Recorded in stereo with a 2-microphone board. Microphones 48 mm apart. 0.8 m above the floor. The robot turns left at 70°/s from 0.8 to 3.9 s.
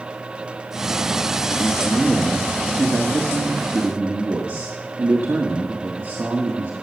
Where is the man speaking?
40° left, 1.5 m; by 6.8 s 125° right, 1.5 m.